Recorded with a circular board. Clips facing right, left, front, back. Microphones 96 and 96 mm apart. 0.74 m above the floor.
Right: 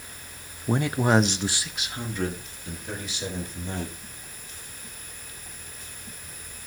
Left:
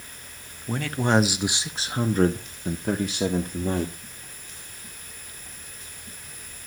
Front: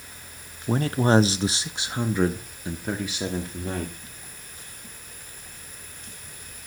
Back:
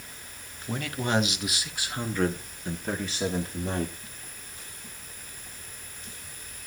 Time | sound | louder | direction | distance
0.7 | a man speaking | right 1 dB, front 8 dB | 40° right | 0.6 m